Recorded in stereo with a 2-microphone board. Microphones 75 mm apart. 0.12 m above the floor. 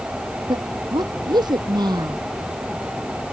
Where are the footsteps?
I don't hear footsteps.